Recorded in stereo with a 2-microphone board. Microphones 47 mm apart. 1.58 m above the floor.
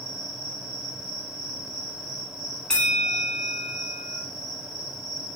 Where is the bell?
15° left (ahead or behind), 3 m.